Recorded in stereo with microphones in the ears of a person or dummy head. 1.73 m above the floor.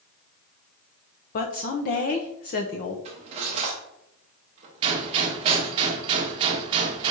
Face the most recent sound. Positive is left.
turn(degrees=-25)  # may be behind; listen again after turning